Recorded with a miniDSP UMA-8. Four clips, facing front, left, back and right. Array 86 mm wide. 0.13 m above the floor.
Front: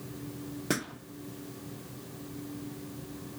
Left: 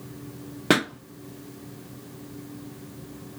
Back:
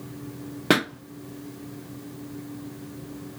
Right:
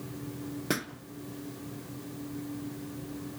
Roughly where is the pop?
Behind left.